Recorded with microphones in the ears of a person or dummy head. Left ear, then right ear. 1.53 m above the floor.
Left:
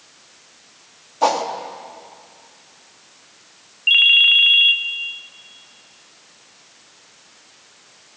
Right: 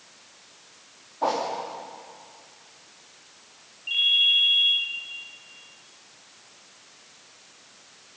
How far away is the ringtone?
About 0.9 m.